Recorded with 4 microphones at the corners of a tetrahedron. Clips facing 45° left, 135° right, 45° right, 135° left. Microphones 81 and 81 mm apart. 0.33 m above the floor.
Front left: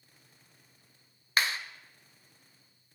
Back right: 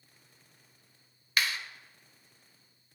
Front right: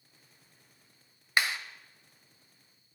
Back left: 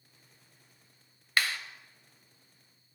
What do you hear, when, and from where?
1.4 s a clap: 10° left, 0.8 m